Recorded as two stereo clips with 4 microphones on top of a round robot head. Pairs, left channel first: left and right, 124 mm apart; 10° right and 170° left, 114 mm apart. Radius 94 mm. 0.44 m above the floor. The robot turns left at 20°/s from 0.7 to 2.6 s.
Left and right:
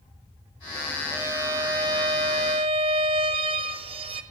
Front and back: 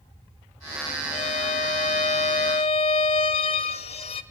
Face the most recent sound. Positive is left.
turn(degrees=-45)